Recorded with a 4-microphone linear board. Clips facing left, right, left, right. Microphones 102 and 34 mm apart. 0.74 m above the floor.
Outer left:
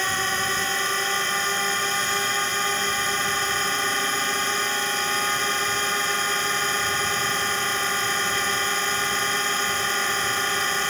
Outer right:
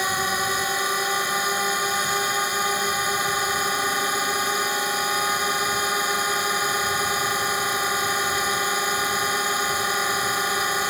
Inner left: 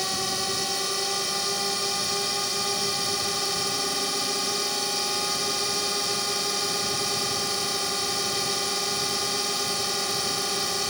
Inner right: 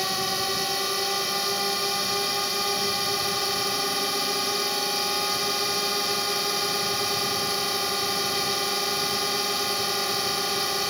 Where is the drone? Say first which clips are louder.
Outer right 2 dB, inner right 2 dB; 10° right (ahead or behind).